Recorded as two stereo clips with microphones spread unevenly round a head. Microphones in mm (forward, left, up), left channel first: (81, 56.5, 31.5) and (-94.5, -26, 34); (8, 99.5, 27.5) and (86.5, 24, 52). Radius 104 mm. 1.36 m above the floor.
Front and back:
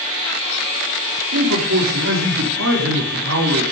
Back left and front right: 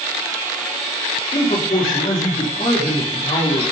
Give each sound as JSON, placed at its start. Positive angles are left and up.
{"t": 1.3, "sound": "a man speaking", "azimuth_deg": -170, "distance_m": 4.0}